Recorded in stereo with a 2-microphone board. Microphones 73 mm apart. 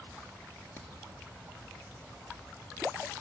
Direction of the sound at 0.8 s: 30° left (ahead or behind).